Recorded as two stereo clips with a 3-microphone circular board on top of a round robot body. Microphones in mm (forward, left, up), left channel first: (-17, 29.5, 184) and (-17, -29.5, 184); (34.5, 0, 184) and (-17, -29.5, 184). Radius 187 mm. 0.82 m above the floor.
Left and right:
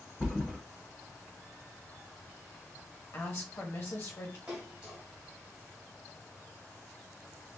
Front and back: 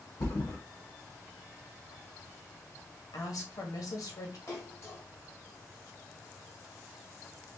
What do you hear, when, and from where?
0.2 s a thud: 15° left, 2.5 m
3.1 s a woman speaking: 35° left, 1.3 m
4.5 s a splash: 20° right, 1.6 m